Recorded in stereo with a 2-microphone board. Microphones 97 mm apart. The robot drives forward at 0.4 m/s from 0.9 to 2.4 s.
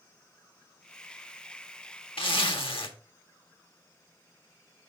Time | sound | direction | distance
2.2 | a zipper | 70° left (ahead or behind) | 1.3 m